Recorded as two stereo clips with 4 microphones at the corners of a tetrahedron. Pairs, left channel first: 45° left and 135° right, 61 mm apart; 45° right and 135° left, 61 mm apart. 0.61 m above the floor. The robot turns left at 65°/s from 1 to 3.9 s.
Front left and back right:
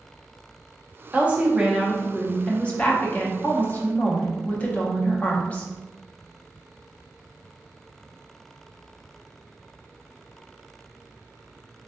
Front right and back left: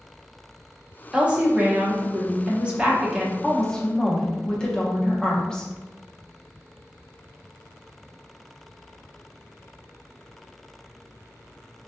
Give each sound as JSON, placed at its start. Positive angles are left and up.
{"t": 1.1, "sound": "a woman speaking", "azimuth_deg": -170, "distance_m": 0.6}